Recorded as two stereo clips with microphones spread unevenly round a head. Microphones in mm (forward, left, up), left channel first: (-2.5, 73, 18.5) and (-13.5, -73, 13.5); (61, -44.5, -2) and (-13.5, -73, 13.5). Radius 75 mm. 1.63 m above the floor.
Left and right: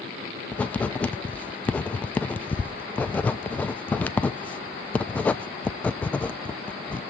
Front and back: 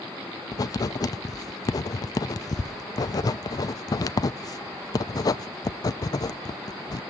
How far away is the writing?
About 0.5 m.